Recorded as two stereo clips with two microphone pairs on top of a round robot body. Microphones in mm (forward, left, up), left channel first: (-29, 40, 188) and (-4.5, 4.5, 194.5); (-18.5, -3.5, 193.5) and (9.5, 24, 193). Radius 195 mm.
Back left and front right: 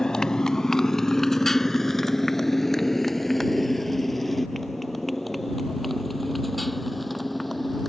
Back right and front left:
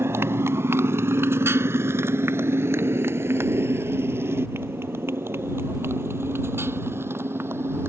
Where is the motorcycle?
45° left; by 7.9 s 35° left.